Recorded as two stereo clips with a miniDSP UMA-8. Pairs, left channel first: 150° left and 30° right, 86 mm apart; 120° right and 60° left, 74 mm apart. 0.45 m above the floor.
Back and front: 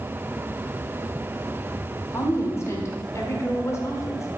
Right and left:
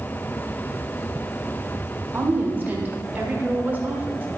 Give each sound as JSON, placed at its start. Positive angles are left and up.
{"t": 2.1, "sound": "a woman speaking", "azimuth_deg": 115, "distance_m": 1.6}